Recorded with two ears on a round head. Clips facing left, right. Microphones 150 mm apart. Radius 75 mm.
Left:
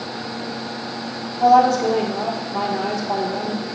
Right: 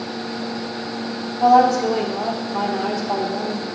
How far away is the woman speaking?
About 1.6 m.